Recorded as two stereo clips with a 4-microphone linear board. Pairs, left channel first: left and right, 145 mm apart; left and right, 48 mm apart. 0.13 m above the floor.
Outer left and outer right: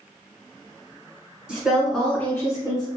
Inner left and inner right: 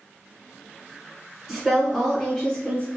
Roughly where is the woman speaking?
Centre.